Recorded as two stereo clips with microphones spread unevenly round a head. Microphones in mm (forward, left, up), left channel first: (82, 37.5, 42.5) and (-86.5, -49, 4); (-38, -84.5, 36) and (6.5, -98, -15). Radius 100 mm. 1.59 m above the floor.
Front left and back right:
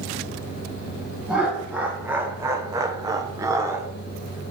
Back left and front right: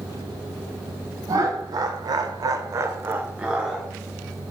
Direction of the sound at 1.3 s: 60° right.